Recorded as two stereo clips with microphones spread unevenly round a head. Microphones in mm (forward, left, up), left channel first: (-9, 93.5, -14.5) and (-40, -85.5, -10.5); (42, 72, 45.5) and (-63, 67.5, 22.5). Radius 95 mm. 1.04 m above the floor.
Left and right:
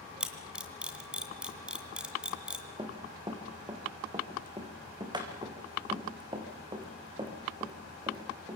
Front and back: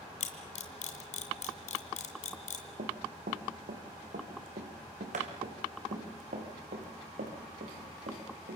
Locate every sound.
0.2 s a camera shutter: 15° right, 2.5 m
2.8 s running footsteps: 165° right, 3.5 m